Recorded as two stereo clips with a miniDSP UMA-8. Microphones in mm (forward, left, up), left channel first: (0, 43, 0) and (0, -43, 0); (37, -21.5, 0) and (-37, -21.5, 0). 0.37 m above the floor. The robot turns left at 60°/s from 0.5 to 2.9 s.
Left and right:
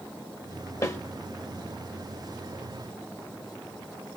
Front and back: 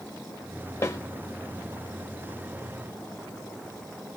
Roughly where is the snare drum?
Ahead left.